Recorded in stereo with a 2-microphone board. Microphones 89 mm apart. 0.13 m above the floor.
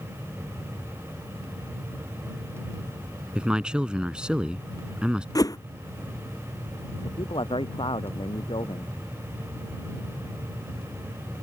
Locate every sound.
3.4 s a man speaking: 10° right (ahead or behind)
5.3 s a whoosh: 40° left (ahead or behind)
7.0 s a man speaking: 75° left (ahead or behind)